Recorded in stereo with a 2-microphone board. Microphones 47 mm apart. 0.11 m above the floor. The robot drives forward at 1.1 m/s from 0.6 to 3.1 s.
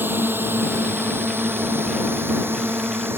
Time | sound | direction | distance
0.0 | a drone | 50° right (ahead or behind) | ?